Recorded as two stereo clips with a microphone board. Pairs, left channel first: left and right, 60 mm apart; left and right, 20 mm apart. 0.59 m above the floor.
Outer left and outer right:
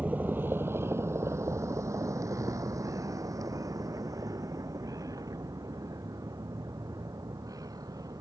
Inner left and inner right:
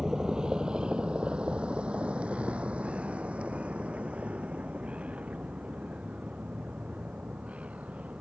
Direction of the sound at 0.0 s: 25° right (ahead or behind).